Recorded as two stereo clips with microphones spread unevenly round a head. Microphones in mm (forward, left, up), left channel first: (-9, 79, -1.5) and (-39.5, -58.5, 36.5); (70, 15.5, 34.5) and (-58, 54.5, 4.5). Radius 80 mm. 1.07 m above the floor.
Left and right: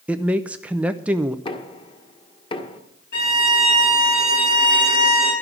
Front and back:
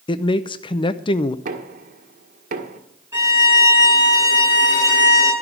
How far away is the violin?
About 8 m.